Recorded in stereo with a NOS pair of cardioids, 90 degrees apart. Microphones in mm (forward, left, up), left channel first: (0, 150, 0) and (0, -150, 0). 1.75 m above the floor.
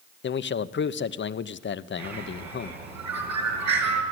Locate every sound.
0.2 s a man speaking: 40° left, 0.9 m
2.0 s a bird: 65° right, 5.5 m